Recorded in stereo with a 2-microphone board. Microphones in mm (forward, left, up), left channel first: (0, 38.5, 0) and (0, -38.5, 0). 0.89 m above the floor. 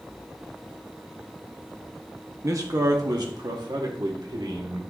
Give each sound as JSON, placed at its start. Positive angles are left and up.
{"t": 2.4, "sound": "a man speaking", "side_deg": -45, "distance_m": 1.0}